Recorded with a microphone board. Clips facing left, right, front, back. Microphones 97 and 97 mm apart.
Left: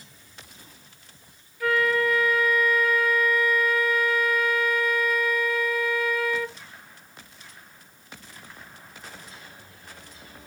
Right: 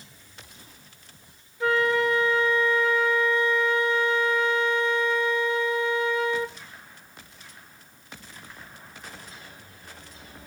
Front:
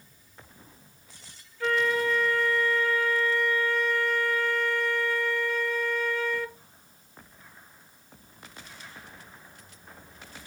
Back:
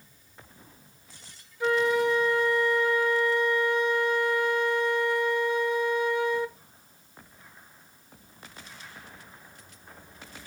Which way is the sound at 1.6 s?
125° right.